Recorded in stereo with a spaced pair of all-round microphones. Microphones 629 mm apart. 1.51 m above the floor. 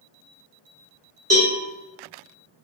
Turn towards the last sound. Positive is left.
turn(degrees=-25)  # may be behind; listen again after turning